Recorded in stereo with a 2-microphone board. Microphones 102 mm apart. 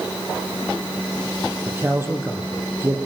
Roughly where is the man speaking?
Right.